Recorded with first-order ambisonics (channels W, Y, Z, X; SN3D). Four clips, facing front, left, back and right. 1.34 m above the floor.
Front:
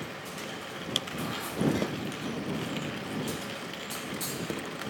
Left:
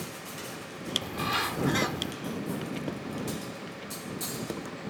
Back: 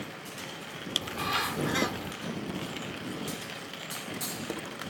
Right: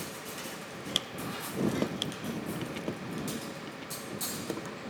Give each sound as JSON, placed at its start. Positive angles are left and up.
{"t": 1.0, "sound": "a bird", "azimuth_deg": 125}